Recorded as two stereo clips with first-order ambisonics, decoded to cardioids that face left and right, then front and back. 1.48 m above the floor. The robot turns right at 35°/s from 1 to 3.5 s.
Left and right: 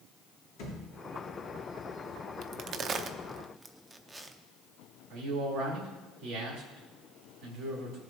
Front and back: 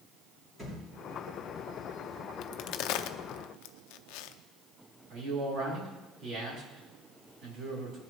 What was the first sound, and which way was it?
A thud, 110° left.